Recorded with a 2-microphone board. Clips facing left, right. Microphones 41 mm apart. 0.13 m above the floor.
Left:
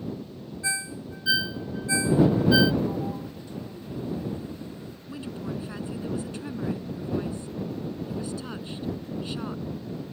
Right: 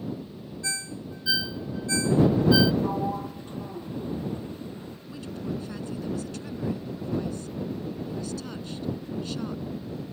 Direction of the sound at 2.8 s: 35° right (ahead or behind).